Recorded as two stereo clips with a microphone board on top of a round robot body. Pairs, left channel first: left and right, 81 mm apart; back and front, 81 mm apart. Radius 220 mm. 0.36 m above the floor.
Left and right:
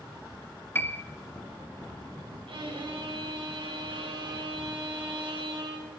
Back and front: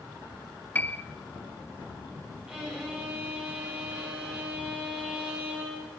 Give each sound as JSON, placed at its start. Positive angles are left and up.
{"t": 0.8, "sound": "a piano", "azimuth_deg": 130, "distance_m": 0.9}
{"t": 2.5, "sound": "a violin", "azimuth_deg": -80, "distance_m": 4.5}